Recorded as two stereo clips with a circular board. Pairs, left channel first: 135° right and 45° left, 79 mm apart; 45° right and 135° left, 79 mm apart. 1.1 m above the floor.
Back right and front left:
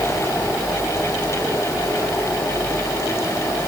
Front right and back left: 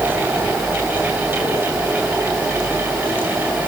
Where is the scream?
I don't hear a scream.